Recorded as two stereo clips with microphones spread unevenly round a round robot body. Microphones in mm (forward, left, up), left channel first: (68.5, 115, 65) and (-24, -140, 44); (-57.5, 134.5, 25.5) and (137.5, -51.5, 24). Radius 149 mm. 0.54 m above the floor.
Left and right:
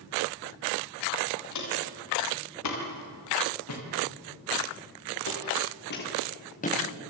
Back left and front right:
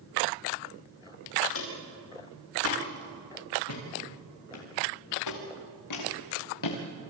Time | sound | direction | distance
1.5 | footsteps | 100° left | 7.5 m